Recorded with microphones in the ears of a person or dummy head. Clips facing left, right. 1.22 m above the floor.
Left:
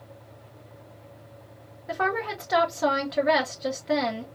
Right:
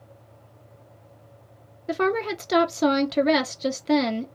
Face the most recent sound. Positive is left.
turn(degrees=-45)  # may be behind; listen again after turning